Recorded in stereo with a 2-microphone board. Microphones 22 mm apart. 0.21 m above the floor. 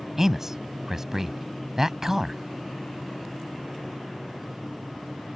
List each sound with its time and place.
0.2 s a man speaking: 20° right (ahead or behind)